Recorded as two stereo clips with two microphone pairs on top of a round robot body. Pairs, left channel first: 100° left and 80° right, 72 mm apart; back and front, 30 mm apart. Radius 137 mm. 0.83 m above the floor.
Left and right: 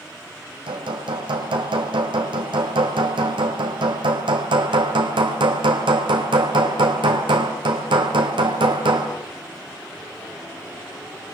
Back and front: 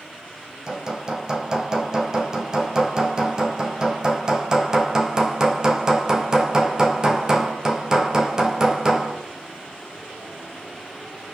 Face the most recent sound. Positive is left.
turn(degrees=-70)